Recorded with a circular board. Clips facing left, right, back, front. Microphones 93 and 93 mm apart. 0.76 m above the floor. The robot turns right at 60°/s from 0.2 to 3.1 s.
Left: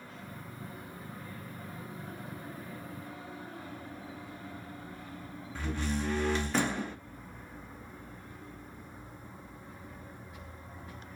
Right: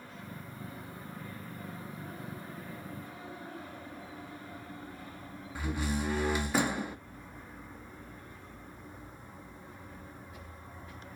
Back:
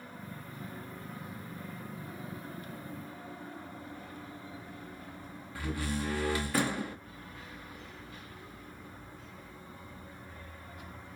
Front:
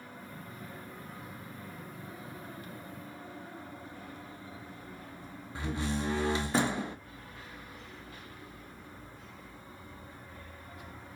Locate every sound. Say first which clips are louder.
5.5 s a door slam: even, front 1 dB; 20° right, 0.5 m